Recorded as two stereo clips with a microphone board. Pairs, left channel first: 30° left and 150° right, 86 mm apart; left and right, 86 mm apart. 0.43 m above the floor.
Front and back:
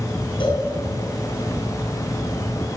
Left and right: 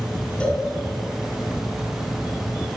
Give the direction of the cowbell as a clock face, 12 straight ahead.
12 o'clock.